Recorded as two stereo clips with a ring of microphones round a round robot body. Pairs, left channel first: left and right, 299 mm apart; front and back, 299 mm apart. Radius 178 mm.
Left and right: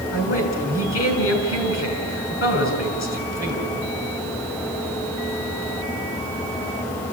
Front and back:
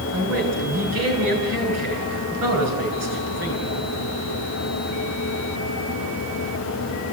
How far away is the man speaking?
About 6 m.